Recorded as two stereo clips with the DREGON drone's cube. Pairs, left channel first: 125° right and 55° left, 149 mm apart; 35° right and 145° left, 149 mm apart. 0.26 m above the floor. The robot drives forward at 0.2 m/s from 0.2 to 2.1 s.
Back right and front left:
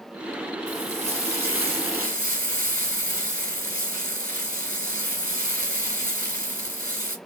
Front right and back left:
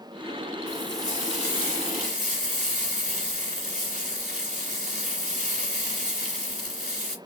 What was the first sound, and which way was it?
Frying, 170° left.